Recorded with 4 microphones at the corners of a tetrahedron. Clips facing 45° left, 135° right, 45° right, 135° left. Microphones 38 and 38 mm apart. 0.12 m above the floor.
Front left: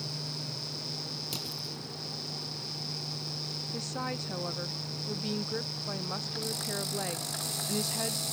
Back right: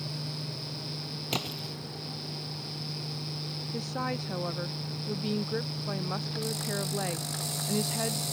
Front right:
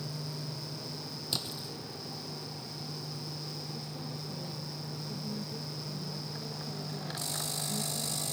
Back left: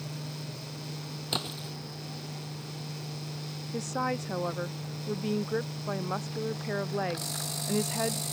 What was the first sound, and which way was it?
A splash, 175° right.